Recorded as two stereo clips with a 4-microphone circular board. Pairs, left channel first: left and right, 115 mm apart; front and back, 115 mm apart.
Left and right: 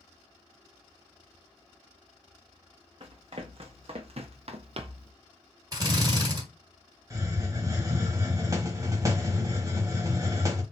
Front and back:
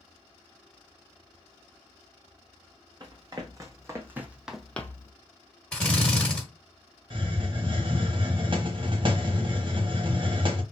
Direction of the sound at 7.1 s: 145° right.